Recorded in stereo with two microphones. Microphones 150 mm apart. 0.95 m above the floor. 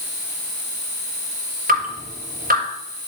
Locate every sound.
1.7 s dripping: 80° right, 5.5 m